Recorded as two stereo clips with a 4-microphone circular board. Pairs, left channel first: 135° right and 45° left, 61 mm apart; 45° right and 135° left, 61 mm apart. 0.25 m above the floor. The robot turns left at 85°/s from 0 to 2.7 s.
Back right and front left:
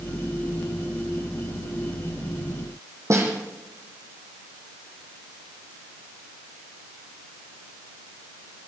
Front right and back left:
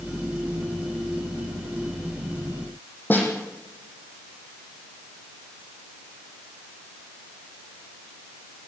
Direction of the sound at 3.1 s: 10° left.